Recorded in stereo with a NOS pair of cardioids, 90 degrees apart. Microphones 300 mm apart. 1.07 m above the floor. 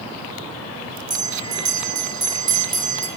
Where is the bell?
15° right, 3 m.